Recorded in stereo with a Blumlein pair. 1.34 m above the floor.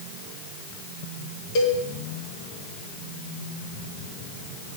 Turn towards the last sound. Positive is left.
turn(degrees=45)